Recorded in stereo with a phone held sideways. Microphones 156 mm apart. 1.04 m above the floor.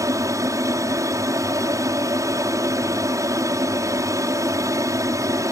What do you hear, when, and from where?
0.0 s an aircraft: 20° right (ahead or behind)